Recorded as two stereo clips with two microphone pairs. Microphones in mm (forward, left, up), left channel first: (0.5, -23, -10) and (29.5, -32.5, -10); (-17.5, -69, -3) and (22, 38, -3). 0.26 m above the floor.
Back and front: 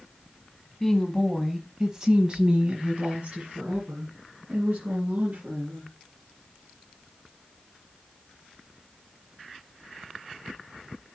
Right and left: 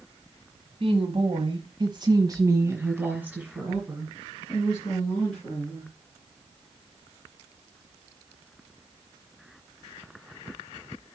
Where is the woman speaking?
80° left, 1.4 m; by 5.9 s 25° right, 3 m.